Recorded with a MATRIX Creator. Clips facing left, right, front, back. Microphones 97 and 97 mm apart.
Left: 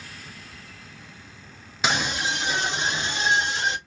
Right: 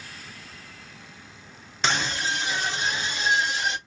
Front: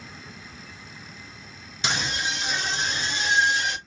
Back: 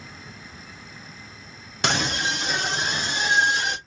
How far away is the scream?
About 0.7 m.